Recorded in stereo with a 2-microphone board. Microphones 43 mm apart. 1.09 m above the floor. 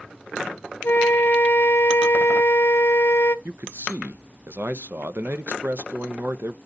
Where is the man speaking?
60° right (ahead or behind), 0.6 m.